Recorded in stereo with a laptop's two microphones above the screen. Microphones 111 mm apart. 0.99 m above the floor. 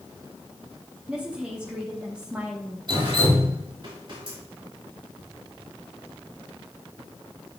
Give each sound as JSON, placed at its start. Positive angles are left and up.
{"t": 1.1, "sound": "a woman speaking", "side_deg": -10, "distance_m": 1.5}
{"t": 2.9, "sound": "dripping", "side_deg": -45, "distance_m": 2.5}